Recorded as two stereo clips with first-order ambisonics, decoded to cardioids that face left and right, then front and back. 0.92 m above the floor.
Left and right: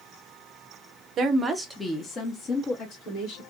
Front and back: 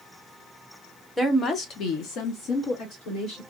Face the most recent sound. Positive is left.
turn(degrees=40)